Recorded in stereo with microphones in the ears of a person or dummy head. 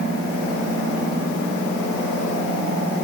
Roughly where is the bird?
I don't hear a bird.